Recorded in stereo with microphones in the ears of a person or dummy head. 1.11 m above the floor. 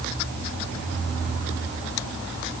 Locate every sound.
Only background noise.